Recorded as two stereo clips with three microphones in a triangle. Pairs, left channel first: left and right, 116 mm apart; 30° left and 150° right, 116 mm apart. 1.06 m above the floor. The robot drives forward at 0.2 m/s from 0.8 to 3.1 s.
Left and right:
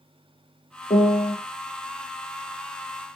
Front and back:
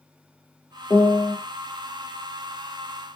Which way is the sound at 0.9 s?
90° left.